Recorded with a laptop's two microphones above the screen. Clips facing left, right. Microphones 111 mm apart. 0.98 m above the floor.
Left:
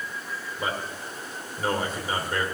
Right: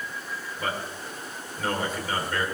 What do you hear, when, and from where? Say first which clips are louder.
0.6 s a man speaking: left 1 dB; 25° left (ahead or behind), 3 m